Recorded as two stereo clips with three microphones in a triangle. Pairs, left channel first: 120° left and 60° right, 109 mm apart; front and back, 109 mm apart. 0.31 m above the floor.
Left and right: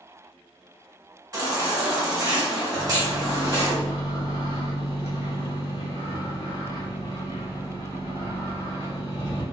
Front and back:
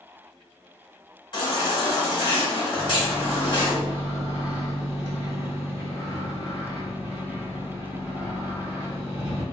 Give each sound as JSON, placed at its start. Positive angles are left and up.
{"t": 1.3, "sound": "a baby crying", "azimuth_deg": -25, "distance_m": 1.5}
{"t": 2.7, "sound": "a microwave", "azimuth_deg": -20, "distance_m": 1.7}